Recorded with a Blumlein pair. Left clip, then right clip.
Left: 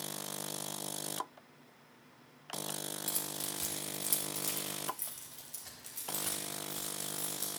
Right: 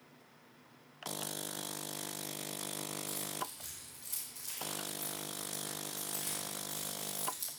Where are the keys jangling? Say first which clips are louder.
Left 1 dB; 55° left, 2.5 m; by 7.5 s 5° left, 5 m.